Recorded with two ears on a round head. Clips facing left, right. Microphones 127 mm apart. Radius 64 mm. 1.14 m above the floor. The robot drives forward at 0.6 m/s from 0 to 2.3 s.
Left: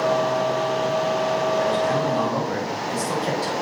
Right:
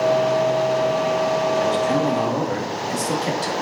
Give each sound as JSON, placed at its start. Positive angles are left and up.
{"t": 1.6, "sound": "a man speaking", "side_deg": -35, "distance_m": 1.9}